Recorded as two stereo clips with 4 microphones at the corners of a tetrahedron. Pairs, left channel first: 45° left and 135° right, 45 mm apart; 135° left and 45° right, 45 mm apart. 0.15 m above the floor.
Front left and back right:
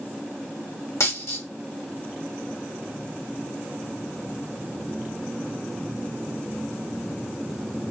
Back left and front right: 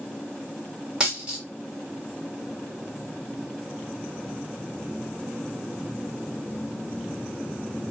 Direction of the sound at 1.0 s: 30° left.